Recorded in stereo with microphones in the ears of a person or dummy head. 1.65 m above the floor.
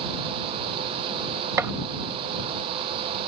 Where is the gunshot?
10° right (ahead or behind).